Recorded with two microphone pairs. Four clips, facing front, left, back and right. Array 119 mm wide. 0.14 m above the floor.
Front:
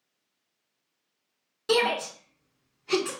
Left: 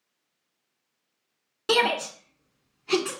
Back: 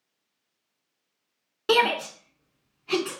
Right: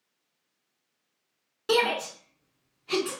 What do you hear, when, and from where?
1.7 s a shout: 170° left, 1.6 m; by 3.1 s 80° left, 1.4 m